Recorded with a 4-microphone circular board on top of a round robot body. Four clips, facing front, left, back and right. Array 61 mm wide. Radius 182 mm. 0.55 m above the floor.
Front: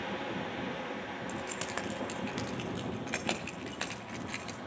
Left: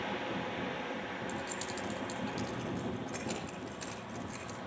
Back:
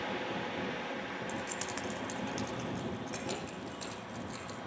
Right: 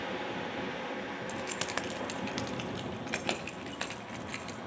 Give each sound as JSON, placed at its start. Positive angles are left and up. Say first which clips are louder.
{"t": 1.3, "sound": "keys jangling", "louder": "right 3 dB, front 1 dB", "azimuth_deg": -85, "distance_m": 1.7}